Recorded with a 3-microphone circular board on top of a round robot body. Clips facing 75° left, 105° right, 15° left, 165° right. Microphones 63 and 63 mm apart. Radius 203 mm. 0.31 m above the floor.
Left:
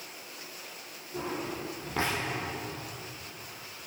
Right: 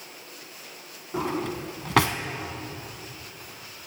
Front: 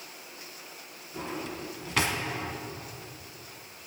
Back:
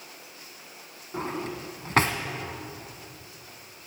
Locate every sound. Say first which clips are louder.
1.1 s a drawer: right 6 dB, back 4 dB; 115° right, 1.0 m